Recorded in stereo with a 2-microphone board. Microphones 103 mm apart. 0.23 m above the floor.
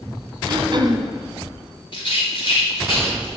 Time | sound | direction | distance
0.5 | throat clearing | 45° right (ahead or behind) | 1.5 m
1.9 | a rattle | 50° left (ahead or behind) | 5.5 m